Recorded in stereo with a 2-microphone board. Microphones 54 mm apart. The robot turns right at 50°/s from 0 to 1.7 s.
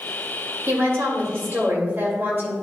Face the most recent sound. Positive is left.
turn(degrees=-50)